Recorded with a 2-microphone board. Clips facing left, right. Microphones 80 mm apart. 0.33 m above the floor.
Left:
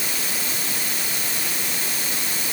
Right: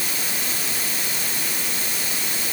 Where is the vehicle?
No vehicle in this recording.